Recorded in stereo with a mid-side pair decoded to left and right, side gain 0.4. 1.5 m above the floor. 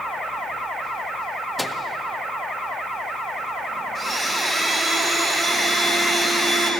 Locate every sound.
1.6 s a microwave: straight ahead, 1.5 m
4.0 s a blender: 35° right, 5 m